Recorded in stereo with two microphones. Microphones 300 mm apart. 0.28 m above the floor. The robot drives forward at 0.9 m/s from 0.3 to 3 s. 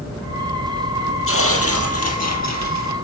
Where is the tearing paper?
45° left (ahead or behind), 3.5 m; by 2.9 s 70° left (ahead or behind), 2.5 m.